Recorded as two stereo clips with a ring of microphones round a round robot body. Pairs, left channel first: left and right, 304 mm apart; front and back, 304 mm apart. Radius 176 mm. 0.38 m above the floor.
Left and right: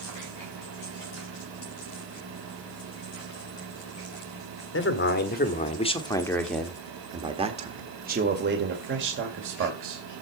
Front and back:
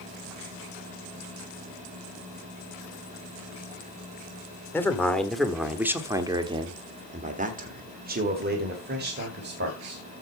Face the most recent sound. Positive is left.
turn(degrees=-125)